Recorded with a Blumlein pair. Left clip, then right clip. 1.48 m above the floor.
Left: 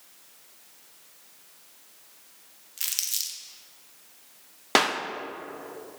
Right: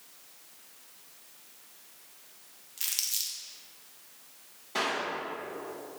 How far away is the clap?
About 0.5 m.